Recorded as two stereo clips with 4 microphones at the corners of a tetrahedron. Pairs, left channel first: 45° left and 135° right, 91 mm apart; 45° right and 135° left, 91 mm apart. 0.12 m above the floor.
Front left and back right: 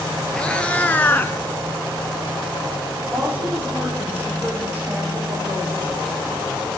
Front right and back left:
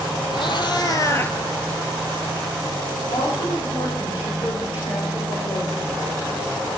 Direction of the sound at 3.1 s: 60° right.